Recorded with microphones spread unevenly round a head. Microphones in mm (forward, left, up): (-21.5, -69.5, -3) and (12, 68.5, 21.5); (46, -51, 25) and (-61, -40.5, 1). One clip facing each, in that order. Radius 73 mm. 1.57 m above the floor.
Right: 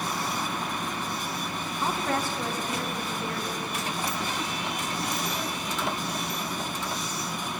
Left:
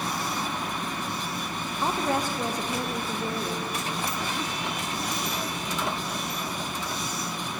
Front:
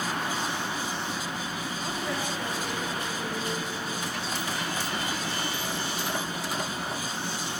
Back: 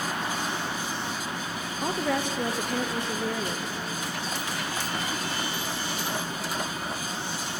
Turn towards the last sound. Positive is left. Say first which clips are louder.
# left 2 dB, back 7 dB
turn(degrees=155)